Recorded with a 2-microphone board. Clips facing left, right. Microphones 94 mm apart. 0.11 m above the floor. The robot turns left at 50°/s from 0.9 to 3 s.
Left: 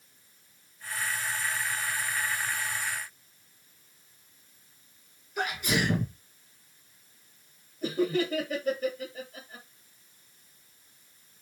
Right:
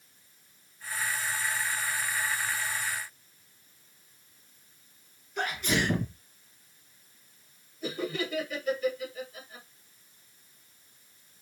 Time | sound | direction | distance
5.4 | a sneeze | 10° left (ahead or behind) | 1.4 m
7.8 | laughter | 40° left (ahead or behind) | 2.5 m